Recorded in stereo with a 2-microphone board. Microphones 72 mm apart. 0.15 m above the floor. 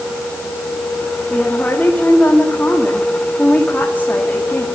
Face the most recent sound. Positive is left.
turn(degrees=25)  # may be behind; listen again after turning